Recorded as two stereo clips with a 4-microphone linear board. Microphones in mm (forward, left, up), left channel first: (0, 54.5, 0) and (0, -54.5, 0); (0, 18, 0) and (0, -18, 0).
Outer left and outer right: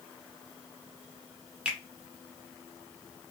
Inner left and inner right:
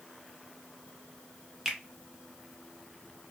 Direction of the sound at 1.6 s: 10° right (ahead or behind).